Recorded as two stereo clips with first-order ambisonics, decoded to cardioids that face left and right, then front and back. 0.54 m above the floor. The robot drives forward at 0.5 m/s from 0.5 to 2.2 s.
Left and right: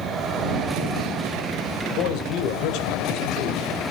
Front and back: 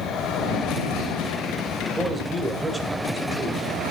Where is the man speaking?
95° left, 2 m; by 3.6 s 100° left, 2 m.